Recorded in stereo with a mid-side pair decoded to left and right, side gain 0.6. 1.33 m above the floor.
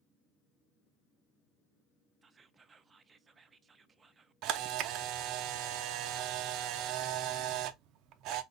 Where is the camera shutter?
65° right, 0.5 m.